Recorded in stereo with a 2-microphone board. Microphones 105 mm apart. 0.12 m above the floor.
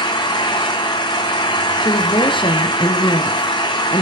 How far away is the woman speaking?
About 2 m.